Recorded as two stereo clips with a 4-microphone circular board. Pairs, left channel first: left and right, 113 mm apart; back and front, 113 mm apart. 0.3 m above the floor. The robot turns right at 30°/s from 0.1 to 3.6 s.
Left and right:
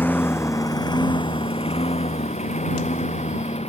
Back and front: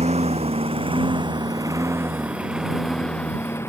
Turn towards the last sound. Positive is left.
turn(degrees=110)